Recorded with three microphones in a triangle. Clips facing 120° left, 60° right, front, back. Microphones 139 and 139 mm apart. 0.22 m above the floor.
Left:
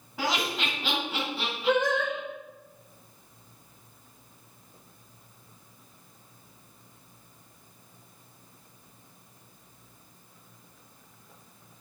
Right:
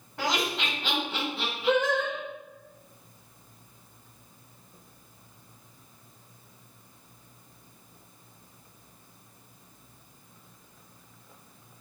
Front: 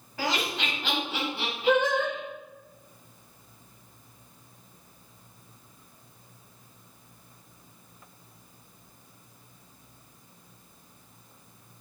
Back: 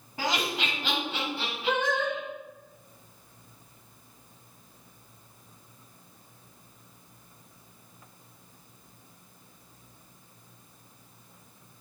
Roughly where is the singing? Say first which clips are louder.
Even, front 4 dB; left.